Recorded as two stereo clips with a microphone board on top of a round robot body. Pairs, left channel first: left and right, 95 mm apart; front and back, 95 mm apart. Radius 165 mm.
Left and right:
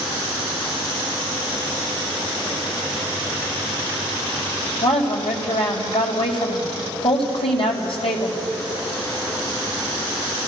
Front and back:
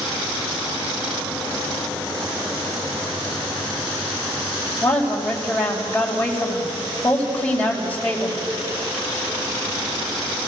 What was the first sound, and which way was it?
A woman speaking, 80° left.